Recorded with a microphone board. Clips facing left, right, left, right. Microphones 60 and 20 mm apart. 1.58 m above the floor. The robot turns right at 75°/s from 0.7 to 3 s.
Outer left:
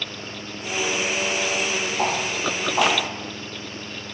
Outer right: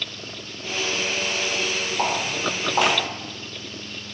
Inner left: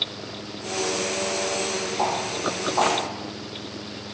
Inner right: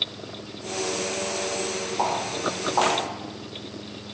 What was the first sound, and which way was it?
Footsteps, 15° right (ahead or behind).